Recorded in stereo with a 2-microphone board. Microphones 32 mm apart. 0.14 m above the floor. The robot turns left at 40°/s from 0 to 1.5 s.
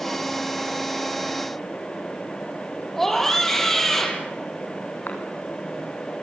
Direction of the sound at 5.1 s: 55° left (ahead or behind).